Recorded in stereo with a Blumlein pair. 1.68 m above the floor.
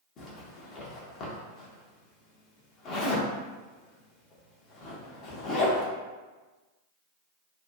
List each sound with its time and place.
0.2 s a zipper: 35° left, 0.7 m